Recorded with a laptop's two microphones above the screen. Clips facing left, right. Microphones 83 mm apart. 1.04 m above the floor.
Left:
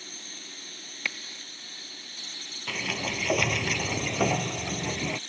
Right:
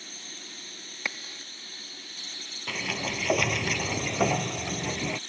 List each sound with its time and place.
1.1 s a crack: 25° right (ahead or behind)
2.7 s a sliding door: 10° right (ahead or behind)